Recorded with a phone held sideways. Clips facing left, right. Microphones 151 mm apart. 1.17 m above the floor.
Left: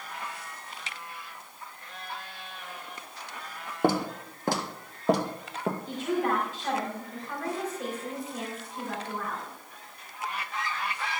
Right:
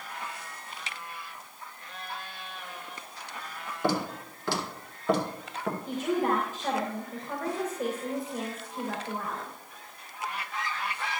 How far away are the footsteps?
About 2 m.